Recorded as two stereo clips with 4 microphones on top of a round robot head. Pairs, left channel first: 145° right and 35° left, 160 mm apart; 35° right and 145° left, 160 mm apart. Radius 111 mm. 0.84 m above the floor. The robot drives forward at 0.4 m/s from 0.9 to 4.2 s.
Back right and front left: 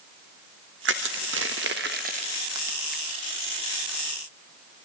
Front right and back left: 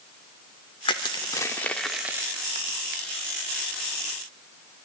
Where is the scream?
I don't hear a scream.